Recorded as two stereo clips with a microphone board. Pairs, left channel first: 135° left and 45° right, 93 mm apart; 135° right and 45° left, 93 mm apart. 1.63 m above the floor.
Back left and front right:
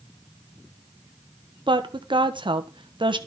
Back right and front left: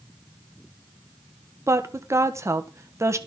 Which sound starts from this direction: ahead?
A woman speaking, at 1.7 s.